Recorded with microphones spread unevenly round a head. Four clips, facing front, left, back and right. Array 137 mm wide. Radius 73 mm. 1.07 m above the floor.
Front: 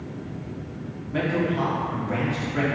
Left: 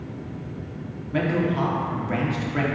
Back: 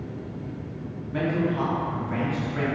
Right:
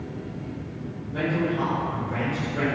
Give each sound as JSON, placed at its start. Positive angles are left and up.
{"t": 1.1, "sound": "a man speaking", "azimuth_deg": 65, "distance_m": 2.5}